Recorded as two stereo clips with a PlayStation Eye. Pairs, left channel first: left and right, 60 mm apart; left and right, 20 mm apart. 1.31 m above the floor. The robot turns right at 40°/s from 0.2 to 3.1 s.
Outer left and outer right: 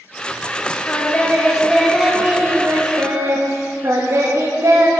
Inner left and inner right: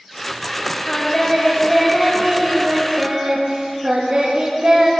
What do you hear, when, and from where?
0.9 s singing: 140° left, 1.1 m; by 4.9 s 130° right, 1.1 m